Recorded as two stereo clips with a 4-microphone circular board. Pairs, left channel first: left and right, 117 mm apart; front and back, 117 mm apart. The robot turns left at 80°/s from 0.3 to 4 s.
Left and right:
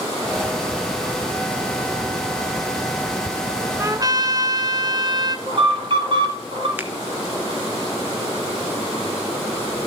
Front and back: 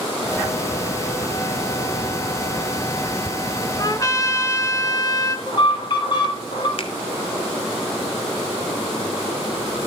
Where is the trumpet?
35° right, 1.7 m; by 5.4 s 50° right, 1.7 m.